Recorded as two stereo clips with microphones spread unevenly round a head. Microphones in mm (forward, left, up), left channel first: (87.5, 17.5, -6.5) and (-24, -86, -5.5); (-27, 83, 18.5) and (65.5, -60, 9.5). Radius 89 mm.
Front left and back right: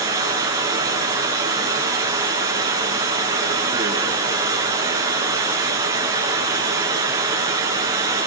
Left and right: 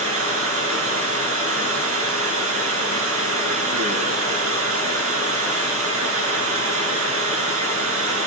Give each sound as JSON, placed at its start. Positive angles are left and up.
{"t": 0.0, "sound": "running water", "azimuth_deg": -70, "distance_m": 7.0}